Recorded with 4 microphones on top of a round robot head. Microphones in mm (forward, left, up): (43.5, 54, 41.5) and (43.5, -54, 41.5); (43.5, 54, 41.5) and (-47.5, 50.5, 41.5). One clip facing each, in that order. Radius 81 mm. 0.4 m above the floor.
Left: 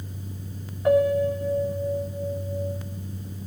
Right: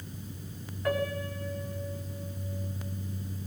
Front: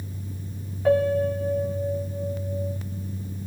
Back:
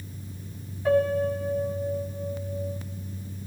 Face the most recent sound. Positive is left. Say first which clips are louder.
# left 12 dB, front 2 dB
turn(degrees=25)